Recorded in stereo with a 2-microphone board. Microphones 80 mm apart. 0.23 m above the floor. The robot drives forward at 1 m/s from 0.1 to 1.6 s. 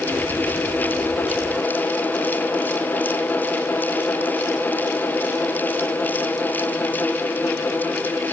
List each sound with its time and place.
Only background noise.